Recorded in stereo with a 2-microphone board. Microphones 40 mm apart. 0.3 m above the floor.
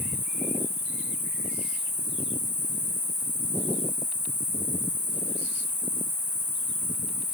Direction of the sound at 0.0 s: 60° right (ahead or behind).